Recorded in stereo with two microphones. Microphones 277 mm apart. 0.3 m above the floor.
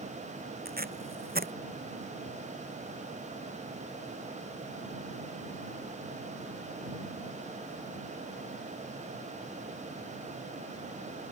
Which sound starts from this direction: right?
Tape being pulled, at 0.7 s.